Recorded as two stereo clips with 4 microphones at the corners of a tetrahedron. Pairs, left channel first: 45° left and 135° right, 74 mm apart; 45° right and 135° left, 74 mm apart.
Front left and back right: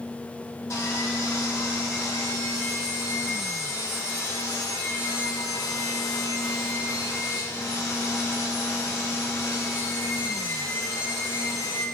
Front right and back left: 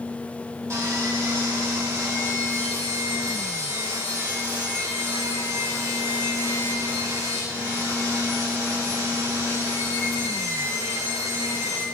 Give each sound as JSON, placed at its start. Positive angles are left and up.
{"t": 0.7, "sound": "sawing", "azimuth_deg": 90, "distance_m": 2.5}